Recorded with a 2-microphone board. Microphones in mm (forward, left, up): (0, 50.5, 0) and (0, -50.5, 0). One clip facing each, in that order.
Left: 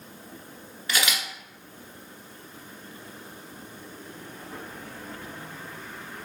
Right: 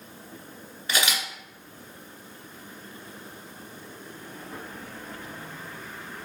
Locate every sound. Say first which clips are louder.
0.9 s a camera shutter: right 1 dB; 25° right (ahead or behind), 1.3 m